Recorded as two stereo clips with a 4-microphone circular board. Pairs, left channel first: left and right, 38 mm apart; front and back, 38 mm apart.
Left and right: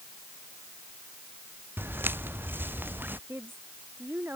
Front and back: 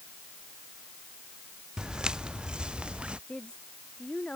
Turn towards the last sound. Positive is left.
turn(degrees=-60)